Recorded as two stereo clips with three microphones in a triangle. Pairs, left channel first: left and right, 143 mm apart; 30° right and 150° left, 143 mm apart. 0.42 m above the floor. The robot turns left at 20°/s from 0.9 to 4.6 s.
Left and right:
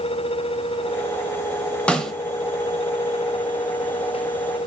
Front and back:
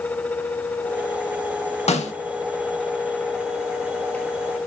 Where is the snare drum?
5° left, 0.5 m; by 2.1 s straight ahead, 0.5 m.